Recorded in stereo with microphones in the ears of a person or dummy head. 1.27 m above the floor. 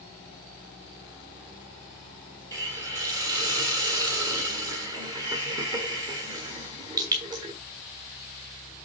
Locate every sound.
2.5 s a hiss: 25° right (ahead or behind), 1.5 m